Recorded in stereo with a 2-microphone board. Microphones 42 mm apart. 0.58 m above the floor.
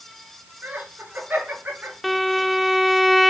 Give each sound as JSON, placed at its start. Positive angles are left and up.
{"t": 0.6, "sound": "laughter", "side_deg": -45, "distance_m": 7.5}
{"t": 2.0, "sound": "a violin", "side_deg": 0, "distance_m": 0.6}